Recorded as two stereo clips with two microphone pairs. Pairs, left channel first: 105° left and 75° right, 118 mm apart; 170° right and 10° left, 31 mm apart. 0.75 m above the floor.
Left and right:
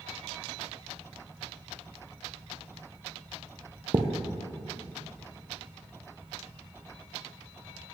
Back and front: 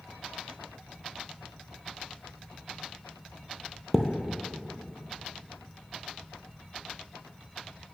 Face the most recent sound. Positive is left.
turn(degrees=-85)